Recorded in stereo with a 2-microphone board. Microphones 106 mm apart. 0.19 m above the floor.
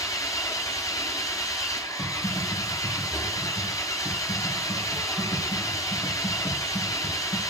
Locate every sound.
0.0 s an engine running: 30° left (ahead or behind), 1.1 m
2.0 s typing on a keyboard: 45° left (ahead or behind), 3.5 m